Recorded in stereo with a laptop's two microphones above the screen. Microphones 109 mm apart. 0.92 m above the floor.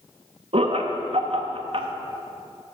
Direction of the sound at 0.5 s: 55° right (ahead or behind).